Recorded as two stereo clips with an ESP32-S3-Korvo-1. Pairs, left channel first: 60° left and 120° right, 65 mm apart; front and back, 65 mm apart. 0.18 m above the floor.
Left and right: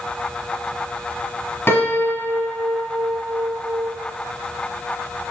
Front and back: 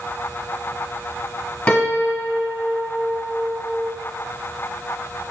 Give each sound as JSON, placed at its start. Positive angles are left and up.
{"t": 1.7, "sound": "a piano", "azimuth_deg": 60, "distance_m": 1.4}